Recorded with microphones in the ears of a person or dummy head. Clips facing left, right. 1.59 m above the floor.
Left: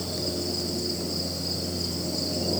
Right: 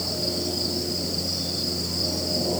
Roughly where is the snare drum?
No snare drum in this recording.